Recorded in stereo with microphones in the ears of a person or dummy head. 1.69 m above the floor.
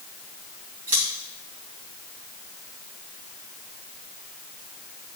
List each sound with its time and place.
0.9 s scissors: 45° right (ahead or behind), 2.5 m